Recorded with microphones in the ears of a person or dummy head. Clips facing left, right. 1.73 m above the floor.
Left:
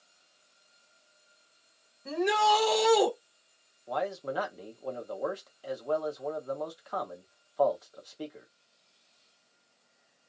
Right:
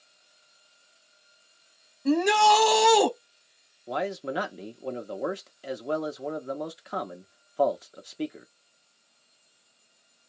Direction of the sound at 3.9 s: 30° right (ahead or behind).